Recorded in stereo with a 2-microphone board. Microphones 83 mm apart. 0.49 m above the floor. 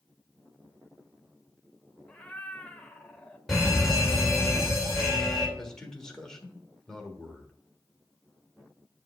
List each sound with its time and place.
2.1 s a cat meowing: 15° left (ahead or behind), 0.8 m
3.5 s a fire alarm: 5° left (ahead or behind), 3 m
5.6 s a man speaking: 5° left (ahead or behind), 1.4 m